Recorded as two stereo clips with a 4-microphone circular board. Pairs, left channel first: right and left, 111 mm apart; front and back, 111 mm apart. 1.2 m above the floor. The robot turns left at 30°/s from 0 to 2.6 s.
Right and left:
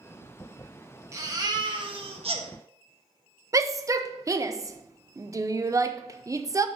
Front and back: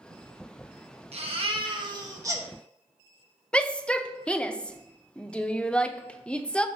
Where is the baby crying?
150° left, 1.3 m; by 2.5 s 110° left, 1.3 m.